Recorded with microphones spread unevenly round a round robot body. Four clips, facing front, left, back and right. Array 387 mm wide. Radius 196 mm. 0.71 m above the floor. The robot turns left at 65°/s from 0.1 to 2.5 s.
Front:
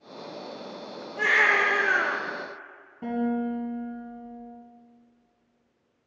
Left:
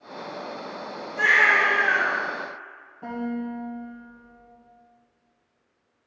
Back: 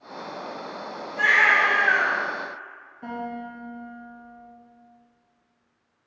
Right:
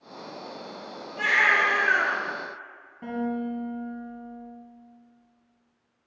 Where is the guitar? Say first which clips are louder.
Right 1 dB, front 6 dB; 25° right, 3.5 m.